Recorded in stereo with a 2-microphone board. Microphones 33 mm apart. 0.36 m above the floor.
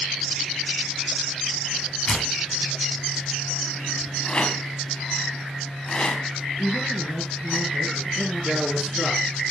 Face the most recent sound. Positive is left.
turn(degrees=-15)  # may be behind; listen again after turning